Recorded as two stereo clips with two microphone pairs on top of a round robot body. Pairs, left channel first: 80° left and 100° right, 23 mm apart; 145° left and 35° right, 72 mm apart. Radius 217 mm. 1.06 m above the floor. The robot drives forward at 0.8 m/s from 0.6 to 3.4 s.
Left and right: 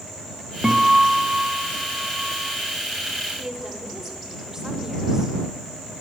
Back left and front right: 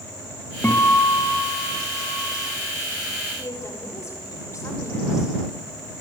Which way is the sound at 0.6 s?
150° right.